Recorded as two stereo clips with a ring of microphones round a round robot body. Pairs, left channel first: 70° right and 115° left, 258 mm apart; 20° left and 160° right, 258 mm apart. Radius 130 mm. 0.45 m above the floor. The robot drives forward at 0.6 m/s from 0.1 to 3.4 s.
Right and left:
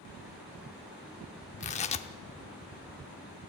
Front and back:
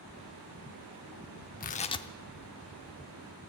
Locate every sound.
1.6 s tearing paper: 15° right, 0.7 m; by 2.1 s 40° right, 0.6 m